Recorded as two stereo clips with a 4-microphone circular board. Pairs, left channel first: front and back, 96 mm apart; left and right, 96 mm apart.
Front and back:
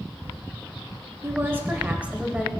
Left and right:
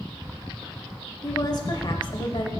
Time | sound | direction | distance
1.2 | a woman speaking | 125° left | 1.1 m